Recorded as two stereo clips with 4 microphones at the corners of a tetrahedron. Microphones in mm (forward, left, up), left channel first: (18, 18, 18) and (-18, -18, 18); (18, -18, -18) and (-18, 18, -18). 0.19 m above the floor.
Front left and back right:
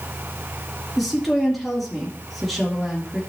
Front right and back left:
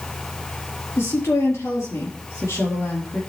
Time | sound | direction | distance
1.0 | a woman speaking | 45° right | 3.5 m